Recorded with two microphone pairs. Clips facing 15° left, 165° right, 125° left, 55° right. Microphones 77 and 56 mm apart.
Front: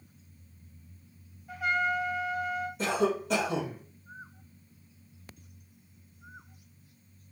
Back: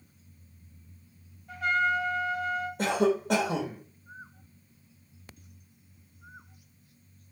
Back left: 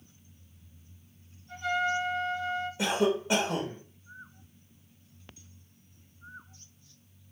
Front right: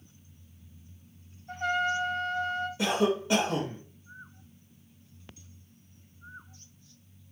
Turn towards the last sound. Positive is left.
turn(degrees=-160)